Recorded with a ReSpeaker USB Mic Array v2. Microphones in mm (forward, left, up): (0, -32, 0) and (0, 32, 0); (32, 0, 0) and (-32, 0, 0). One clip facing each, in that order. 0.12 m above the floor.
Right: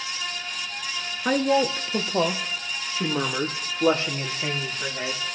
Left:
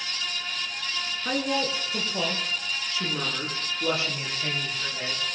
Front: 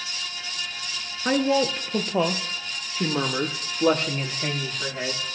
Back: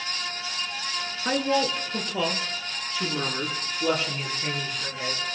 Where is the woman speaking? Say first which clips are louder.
Right 7 dB, front 3 dB; 70° right, 1.5 m; by 5.2 s 35° right, 5.5 m.